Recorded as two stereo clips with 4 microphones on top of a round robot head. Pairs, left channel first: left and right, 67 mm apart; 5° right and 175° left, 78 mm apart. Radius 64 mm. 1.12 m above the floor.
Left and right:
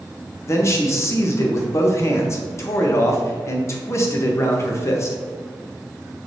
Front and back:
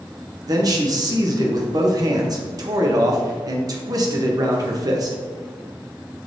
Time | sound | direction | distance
0.5 | a man speaking | 135° left | 0.9 m